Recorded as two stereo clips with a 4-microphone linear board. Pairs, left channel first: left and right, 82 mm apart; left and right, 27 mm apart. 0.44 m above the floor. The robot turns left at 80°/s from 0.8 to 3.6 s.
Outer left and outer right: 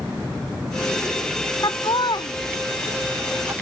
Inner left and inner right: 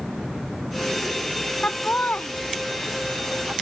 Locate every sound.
1.6 s laughter: 55° left (ahead or behind); by 3.5 s 30° right (ahead or behind)